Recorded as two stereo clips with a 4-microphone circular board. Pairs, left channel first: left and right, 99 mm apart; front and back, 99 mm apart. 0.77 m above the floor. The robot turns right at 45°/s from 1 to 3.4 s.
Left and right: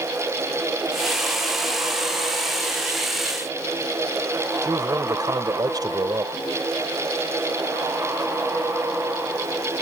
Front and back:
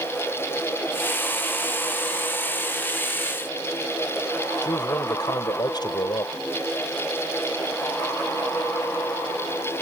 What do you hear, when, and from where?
4.6 s a man speaking: 40° right